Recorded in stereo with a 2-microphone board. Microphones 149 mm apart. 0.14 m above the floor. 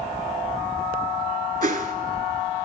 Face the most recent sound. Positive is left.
turn(degrees=-60)  # may be behind; listen again after turning